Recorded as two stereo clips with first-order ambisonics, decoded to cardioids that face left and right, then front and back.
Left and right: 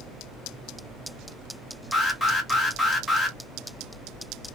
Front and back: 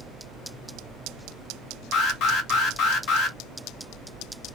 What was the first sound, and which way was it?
An alarm, 10° left.